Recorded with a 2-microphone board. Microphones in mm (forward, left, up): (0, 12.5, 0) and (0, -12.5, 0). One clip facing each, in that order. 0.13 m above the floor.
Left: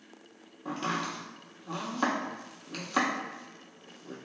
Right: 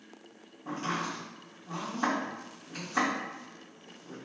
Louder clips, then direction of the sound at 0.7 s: Left 1 dB; 70° left (ahead or behind).